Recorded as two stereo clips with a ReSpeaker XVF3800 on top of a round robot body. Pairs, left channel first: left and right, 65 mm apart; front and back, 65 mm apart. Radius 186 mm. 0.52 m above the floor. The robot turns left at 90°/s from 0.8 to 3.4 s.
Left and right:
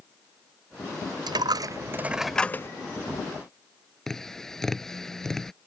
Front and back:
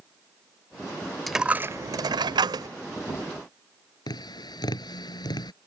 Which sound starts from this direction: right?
A dropped coin, at 1.3 s.